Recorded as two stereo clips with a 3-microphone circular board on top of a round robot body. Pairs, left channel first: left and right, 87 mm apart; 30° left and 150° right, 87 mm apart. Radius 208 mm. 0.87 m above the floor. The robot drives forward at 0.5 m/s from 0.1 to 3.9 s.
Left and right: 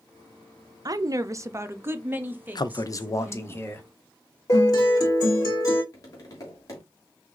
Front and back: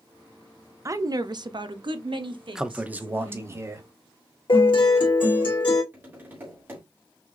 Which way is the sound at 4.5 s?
45° left.